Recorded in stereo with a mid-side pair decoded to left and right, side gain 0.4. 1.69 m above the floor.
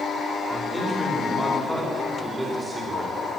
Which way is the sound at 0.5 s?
5° right.